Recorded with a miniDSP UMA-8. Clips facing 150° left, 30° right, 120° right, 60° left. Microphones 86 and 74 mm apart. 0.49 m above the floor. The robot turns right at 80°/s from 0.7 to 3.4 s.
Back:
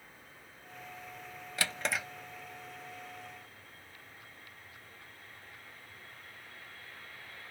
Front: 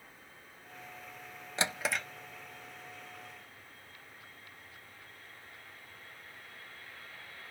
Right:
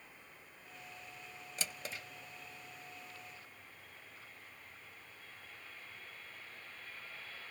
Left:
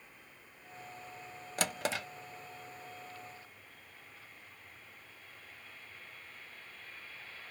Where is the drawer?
35° left, 0.5 m; by 2.0 s 70° left, 0.5 m.